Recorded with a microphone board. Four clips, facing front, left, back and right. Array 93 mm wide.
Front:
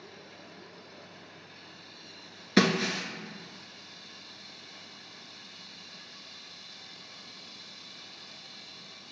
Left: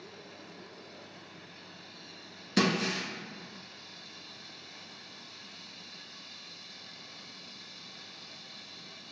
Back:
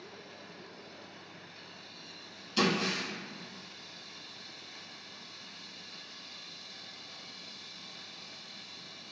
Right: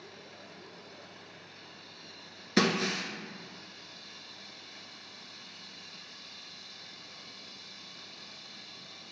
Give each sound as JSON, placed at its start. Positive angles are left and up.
{"t": 2.6, "sound": "breaking glass", "azimuth_deg": -15, "distance_m": 0.8}